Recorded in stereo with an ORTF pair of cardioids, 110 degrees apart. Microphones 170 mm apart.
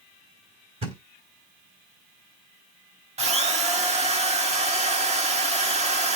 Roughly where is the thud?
Ahead right.